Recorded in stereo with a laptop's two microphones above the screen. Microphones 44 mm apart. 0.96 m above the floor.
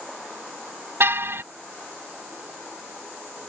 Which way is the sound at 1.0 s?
60° right (ahead or behind).